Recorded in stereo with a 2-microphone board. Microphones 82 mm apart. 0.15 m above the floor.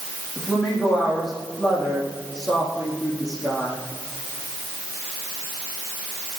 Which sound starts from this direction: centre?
A woman speaking, at 0.4 s.